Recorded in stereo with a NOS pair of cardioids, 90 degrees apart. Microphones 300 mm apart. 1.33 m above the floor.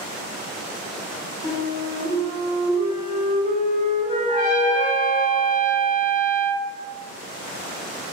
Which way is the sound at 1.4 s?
20° left.